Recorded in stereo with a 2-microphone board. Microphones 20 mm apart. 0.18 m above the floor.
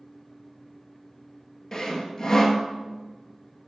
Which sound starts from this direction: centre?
Sawing, at 1.7 s.